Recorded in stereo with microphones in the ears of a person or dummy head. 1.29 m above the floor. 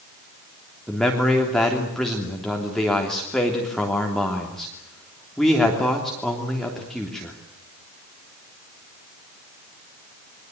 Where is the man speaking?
Centre (ahead or behind), 3 m.